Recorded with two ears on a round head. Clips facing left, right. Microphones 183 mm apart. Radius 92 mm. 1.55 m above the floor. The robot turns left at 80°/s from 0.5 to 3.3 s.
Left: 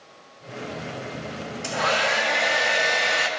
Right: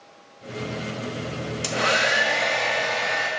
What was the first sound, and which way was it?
A hair dryer, 120° right.